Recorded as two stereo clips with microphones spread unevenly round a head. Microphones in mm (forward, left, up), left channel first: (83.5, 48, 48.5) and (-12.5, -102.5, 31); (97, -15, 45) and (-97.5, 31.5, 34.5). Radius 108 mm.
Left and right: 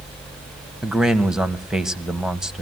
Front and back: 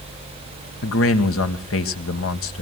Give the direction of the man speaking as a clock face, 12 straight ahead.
1 o'clock.